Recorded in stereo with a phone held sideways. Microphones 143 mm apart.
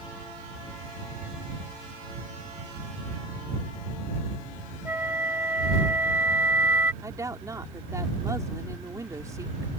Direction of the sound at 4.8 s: 15° right (ahead or behind).